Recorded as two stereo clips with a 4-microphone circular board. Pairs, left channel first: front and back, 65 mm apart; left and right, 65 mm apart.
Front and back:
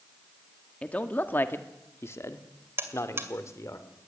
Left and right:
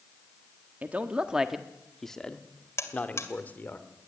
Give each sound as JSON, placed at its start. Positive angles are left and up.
{"t": 0.8, "sound": "a man speaking", "azimuth_deg": -55, "distance_m": 1.3}
{"t": 2.8, "sound": "a buzzer", "azimuth_deg": 130, "distance_m": 2.0}